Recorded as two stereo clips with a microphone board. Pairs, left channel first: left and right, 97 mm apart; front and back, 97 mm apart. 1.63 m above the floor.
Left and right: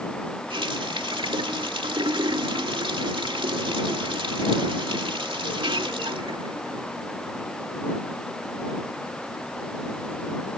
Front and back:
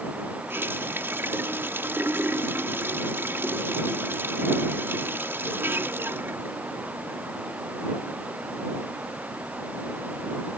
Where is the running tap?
115° right.